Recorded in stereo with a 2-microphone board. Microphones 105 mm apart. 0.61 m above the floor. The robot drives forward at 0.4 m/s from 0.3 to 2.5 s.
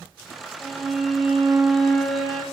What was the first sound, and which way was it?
A violin, centre (ahead or behind).